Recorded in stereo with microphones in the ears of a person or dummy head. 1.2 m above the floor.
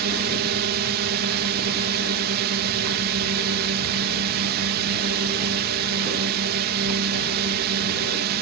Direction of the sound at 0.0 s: 50° right (ahead or behind).